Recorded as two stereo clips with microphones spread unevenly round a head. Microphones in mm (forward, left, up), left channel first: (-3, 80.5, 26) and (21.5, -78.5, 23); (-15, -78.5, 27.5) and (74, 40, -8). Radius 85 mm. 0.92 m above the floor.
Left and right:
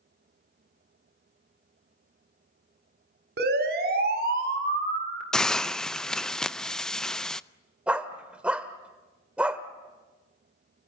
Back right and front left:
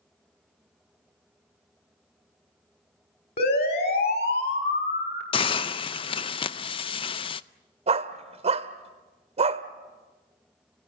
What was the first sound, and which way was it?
A siren, 105° right.